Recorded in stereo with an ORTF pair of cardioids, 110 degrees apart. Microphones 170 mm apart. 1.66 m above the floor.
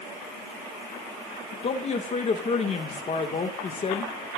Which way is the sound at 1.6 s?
40° left.